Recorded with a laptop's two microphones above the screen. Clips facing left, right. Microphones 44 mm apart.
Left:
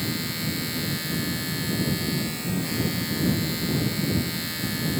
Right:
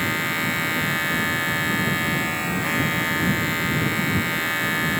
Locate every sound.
0.0 s a machine running: 45° right (ahead or behind)